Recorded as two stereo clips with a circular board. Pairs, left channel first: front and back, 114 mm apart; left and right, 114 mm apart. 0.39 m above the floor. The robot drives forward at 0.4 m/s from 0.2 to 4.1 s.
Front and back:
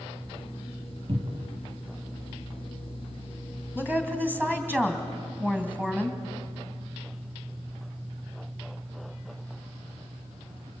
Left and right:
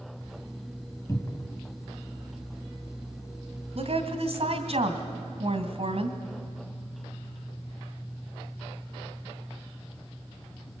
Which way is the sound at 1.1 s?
150° left.